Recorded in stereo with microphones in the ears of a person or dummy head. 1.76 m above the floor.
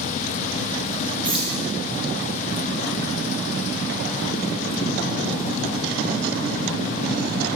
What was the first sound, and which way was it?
Keys jangling, 10° right (ahead or behind).